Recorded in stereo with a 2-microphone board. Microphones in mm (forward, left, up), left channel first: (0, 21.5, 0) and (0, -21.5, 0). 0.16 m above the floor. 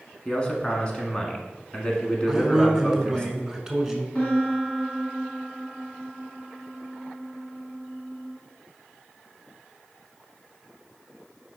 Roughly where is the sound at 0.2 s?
Left.